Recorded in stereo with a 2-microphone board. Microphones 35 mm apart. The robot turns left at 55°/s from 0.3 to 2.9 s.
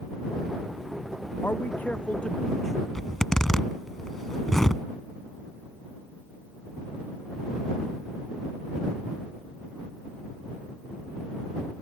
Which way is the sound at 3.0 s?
10° left (ahead or behind).